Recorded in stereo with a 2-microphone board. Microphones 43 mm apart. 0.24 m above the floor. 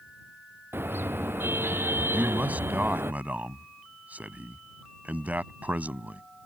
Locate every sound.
0.7 s a car horn: 60° right (ahead or behind); by 3.1 s 65° right (ahead or behind)
2.1 s a man speaking: 35° right (ahead or behind)